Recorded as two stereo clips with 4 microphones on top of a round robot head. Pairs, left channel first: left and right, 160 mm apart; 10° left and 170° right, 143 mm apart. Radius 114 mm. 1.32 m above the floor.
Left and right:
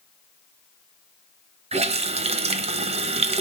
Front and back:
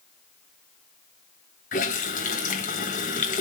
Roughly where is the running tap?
Ahead right.